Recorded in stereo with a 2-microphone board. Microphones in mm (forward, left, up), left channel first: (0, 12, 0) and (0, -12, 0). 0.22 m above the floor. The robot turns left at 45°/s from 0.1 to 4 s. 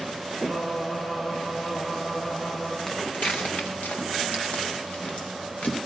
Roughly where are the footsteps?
Left.